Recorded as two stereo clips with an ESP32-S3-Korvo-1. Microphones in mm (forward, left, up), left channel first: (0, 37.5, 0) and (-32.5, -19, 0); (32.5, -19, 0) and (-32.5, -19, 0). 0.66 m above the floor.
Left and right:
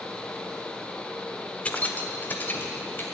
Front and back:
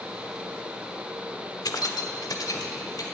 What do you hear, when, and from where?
1.6 s keys jangling: 5° right, 1.1 m; by 3.0 s 10° left, 2.5 m